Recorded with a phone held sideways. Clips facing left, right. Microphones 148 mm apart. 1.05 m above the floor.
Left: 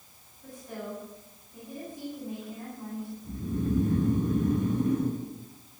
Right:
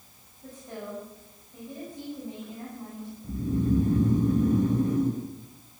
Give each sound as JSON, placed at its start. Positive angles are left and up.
{"t": 0.4, "sound": "a woman speaking", "side_deg": -20, "distance_m": 8.5}
{"t": 3.2, "sound": "snoring", "side_deg": -35, "distance_m": 5.0}